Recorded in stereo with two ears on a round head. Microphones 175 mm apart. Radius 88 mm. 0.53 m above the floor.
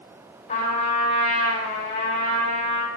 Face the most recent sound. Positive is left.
turn(degrees=45)  # may be behind; listen again after turning